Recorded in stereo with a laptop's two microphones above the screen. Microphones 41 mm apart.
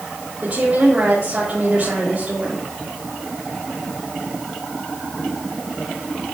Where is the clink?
No clink in this recording.